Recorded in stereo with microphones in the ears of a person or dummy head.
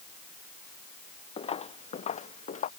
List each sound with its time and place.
1.4 s footsteps: 30° left (ahead or behind); by 2.7 s 40° left (ahead or behind)